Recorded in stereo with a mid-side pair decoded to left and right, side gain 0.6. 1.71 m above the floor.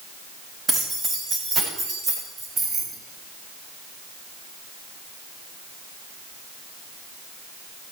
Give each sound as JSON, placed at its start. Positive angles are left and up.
{"t": 0.7, "sound": "keys jangling", "azimuth_deg": -25, "distance_m": 7.0}
{"t": 2.6, "sound": "keys jangling", "azimuth_deg": -40, "distance_m": 3.0}